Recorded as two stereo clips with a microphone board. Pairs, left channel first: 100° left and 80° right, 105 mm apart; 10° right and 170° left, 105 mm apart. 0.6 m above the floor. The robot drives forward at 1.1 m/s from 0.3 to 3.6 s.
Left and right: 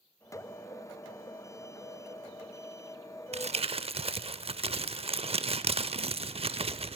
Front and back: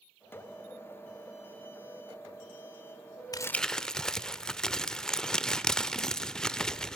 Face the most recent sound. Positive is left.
turn(degrees=-95)